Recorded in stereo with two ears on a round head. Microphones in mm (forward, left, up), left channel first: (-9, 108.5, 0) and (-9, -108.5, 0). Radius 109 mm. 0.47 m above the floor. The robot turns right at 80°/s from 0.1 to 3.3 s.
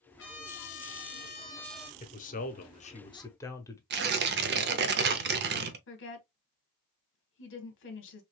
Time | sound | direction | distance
0.2 | a trumpet | 55° left | 1.0 m
2.0 | a man speaking | 55° left | 0.8 m
3.9 | tearing paper | 45° right (ahead or behind) | 0.6 m
5.9 | a woman speaking | 50° left (ahead or behind) | 1.1 m